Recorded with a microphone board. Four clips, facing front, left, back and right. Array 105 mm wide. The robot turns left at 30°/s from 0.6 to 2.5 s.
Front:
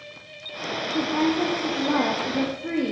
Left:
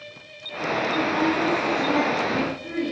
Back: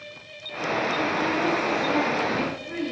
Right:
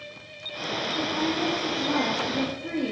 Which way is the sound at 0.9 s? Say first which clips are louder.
Left 4 dB, front 2 dB; 35° left.